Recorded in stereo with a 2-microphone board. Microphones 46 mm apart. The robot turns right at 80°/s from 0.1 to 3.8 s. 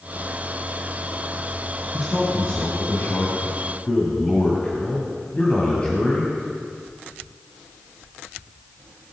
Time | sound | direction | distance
1.9 | a man speaking | 10° right | 1.9 m